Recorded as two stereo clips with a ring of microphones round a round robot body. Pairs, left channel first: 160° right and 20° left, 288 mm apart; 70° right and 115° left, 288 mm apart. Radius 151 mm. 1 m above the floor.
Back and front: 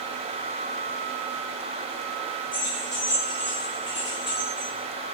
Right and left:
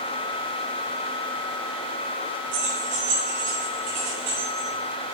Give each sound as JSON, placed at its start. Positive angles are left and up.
{"t": 2.5, "sound": "keys jangling", "azimuth_deg": 135, "distance_m": 4.0}